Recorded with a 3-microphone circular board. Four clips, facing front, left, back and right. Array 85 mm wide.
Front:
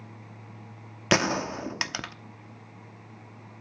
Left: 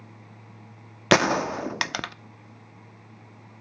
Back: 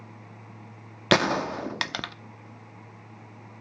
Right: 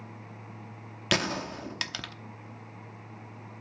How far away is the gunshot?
About 0.7 m.